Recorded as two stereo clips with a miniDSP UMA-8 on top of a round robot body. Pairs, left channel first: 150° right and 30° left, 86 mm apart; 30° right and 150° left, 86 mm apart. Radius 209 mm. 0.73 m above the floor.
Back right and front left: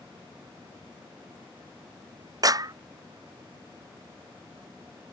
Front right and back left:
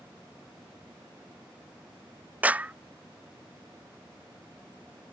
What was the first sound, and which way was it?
A clap, 75° left.